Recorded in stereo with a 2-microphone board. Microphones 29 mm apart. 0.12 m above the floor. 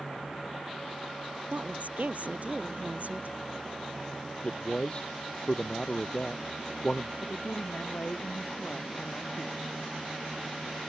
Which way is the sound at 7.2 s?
65° left (ahead or behind).